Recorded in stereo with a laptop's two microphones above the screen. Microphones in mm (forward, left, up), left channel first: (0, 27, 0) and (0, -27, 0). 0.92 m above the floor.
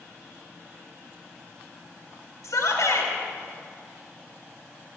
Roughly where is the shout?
Left.